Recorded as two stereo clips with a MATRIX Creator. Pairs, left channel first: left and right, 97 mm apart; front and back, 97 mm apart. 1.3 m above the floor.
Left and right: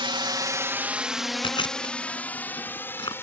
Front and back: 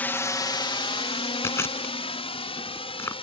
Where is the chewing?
60° left.